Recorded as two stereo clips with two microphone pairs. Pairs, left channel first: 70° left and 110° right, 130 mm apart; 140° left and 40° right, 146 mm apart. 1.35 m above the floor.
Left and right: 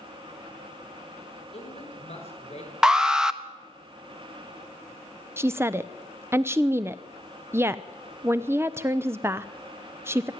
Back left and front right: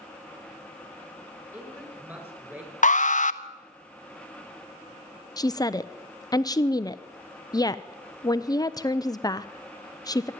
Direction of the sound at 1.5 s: 35° left.